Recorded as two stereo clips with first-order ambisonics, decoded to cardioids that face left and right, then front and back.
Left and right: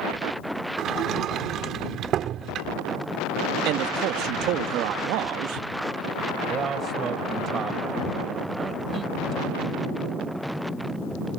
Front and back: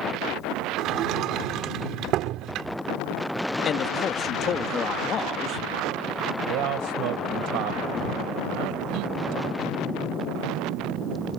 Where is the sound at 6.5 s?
155° right.